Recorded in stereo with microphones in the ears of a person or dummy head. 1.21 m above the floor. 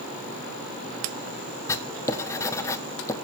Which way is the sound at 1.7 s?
15° left (ahead or behind).